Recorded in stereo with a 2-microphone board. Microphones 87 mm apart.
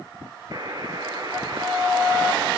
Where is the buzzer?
45° right (ahead or behind), 2 m.